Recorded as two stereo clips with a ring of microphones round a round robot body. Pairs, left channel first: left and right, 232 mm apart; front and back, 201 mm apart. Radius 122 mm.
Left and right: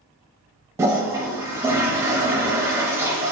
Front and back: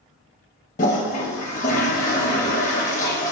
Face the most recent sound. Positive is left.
turn(degrees=-20)